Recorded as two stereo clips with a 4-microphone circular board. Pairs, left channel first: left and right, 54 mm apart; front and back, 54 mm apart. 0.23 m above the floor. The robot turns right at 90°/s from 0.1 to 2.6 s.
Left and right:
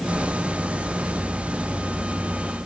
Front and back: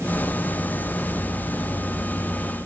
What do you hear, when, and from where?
Only background noise.